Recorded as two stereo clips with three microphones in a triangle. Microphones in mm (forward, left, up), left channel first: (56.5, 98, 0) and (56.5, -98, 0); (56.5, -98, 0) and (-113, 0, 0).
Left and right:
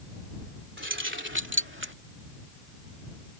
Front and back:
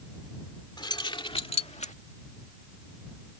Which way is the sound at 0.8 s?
100° right.